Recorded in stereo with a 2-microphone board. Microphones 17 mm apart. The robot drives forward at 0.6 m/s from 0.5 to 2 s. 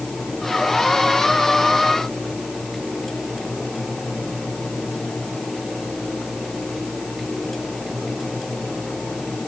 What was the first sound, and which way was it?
Only background noise.